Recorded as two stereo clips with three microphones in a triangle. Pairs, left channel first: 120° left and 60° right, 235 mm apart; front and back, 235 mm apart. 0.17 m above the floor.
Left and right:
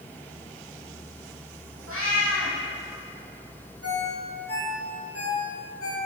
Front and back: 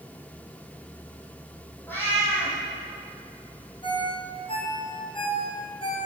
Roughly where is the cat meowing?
Right.